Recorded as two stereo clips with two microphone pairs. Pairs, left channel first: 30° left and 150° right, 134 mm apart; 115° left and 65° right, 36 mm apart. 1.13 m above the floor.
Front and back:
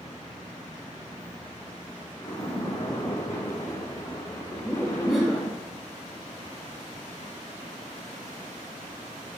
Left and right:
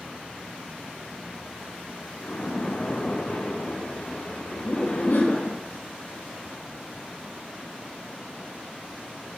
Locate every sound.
2.2 s a splash: 90° left, 1.5 m
4.5 s laughter: 120° left, 1.9 m